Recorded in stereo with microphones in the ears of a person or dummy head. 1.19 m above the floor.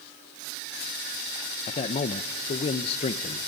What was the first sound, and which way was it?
A man speaking, 35° left (ahead or behind).